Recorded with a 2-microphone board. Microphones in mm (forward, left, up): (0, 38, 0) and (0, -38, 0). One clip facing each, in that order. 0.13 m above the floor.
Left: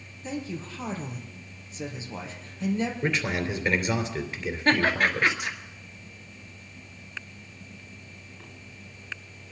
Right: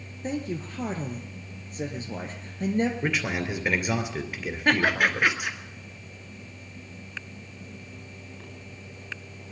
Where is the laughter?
10° right (ahead or behind), 2 m.